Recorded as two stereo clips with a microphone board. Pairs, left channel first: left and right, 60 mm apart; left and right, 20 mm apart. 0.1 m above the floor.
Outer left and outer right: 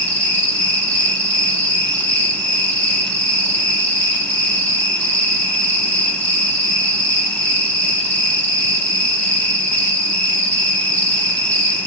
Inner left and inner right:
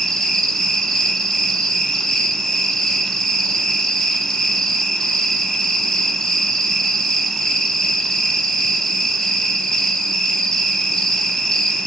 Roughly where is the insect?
Left.